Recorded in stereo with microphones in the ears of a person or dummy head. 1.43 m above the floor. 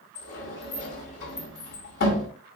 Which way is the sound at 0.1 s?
60° left (ahead or behind).